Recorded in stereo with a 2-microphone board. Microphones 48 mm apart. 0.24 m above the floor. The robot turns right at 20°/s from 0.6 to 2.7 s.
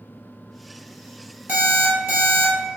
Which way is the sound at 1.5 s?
40° right (ahead or behind).